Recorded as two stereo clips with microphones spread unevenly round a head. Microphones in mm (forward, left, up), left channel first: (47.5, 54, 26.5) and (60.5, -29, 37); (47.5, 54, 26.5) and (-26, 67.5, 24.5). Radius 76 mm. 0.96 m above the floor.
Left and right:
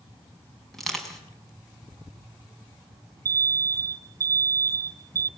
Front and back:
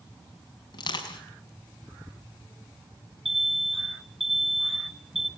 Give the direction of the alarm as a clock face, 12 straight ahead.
4 o'clock.